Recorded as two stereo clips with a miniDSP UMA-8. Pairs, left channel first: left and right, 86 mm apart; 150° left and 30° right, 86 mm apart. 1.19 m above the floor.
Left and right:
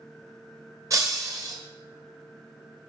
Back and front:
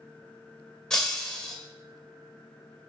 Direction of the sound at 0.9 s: 130° right.